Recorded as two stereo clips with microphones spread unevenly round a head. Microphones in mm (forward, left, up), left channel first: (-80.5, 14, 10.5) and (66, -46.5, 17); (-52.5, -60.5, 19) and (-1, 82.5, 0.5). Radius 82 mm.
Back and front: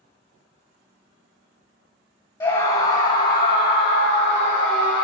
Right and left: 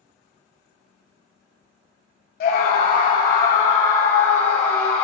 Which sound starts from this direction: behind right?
A scream, at 2.4 s.